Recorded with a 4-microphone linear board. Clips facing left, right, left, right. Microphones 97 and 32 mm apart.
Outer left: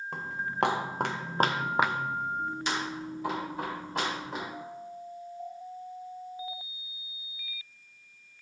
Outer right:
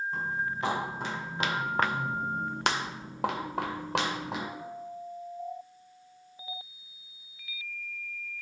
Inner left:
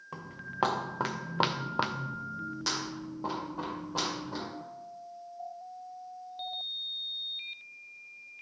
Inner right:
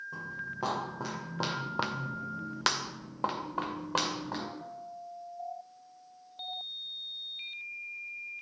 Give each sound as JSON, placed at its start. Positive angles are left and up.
{"t": 0.1, "sound": "footsteps", "side_deg": 75, "distance_m": 2.5}